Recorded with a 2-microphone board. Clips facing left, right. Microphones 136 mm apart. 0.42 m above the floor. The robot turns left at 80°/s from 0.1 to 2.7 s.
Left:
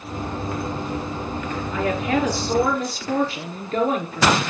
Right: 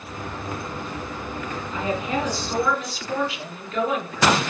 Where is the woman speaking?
125° left, 6.5 m; by 4.4 s 45° left, 6.5 m.